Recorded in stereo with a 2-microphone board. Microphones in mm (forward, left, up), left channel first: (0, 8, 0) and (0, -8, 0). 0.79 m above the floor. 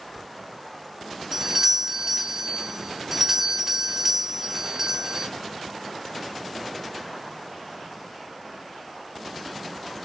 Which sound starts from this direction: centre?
A doorbell, at 1.3 s.